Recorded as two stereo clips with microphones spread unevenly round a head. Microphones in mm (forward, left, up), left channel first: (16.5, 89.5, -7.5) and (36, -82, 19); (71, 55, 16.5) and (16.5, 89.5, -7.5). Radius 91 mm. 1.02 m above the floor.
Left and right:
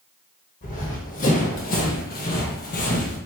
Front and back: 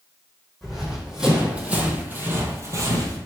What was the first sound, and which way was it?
Running footsteps, 50° left.